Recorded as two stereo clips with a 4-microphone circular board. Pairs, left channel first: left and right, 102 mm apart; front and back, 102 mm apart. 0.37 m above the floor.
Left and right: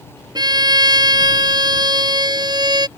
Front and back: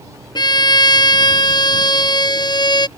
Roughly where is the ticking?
No ticking in this recording.